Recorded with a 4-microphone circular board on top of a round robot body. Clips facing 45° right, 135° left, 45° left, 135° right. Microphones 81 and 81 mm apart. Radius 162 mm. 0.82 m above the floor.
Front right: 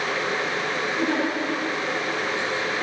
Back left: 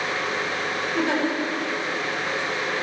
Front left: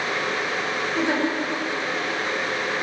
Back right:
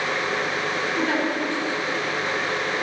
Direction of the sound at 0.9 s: 105° left.